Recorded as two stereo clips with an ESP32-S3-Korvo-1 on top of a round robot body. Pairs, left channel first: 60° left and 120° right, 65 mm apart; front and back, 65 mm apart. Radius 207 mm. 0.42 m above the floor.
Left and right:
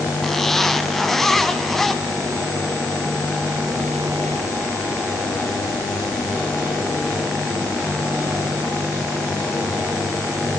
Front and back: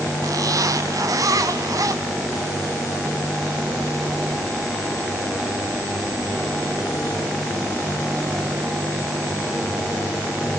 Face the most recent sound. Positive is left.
turn(degrees=145)